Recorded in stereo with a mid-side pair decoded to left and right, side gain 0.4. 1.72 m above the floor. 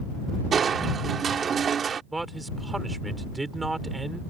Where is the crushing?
55° right.